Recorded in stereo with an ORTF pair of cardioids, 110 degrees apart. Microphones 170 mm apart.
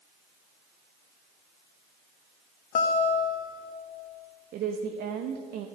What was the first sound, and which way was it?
A guitar, 55° left.